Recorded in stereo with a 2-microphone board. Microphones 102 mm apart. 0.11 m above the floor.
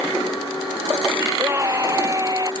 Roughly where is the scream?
Right.